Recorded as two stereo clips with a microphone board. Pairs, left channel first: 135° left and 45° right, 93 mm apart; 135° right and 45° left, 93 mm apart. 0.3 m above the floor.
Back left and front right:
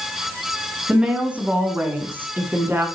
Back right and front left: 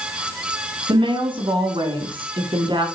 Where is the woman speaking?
35° left, 3 m; by 2.9 s 20° left, 4 m.